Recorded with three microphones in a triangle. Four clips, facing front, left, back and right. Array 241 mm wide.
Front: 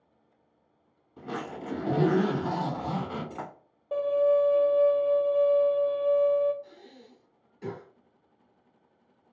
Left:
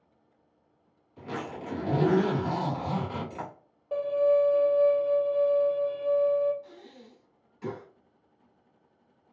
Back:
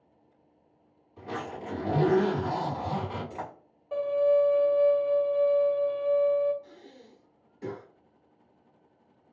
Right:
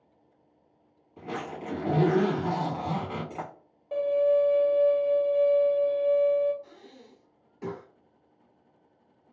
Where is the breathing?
90° right, 1.9 m.